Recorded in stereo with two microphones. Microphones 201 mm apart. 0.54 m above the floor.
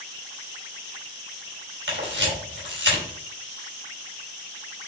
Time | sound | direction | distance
1.9 | a camera shutter | 70° right (ahead or behind) | 3.5 m